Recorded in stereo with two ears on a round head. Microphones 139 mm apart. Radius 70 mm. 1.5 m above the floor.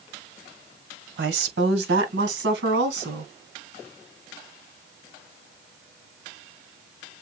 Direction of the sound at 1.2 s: 80° right.